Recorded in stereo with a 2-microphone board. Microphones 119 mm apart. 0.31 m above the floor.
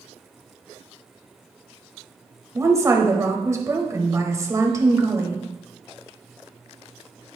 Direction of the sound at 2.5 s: 25° right (ahead or behind).